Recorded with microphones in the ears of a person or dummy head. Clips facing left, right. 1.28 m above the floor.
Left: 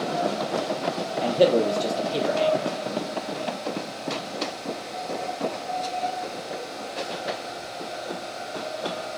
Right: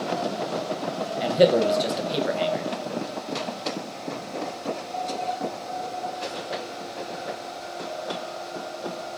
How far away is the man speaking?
About 0.9 m.